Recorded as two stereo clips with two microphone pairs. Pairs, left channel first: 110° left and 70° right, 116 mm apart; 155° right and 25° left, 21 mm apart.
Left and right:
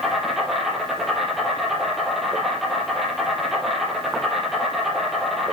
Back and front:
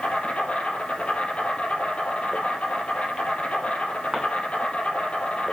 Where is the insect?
160° right, 4.5 m.